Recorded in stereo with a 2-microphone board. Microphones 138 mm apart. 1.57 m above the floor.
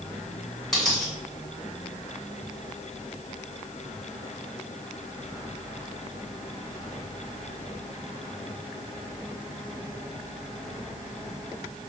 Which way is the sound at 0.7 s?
Centre (ahead or behind).